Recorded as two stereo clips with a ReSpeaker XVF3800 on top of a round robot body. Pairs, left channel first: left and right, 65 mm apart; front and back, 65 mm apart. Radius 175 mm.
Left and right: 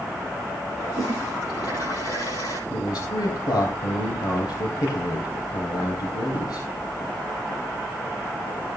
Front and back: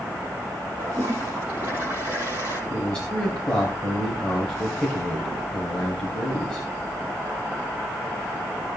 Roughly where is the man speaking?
Left.